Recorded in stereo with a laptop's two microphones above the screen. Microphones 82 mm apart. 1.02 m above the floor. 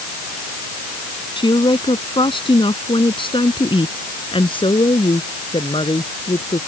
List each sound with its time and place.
1.4 s a woman speaking: 70° left (ahead or behind); by 6.6 s 80° left